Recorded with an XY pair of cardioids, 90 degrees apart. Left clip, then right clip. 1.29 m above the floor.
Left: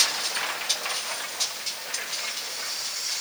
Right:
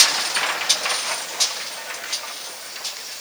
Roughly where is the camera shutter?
I don't hear a camera shutter.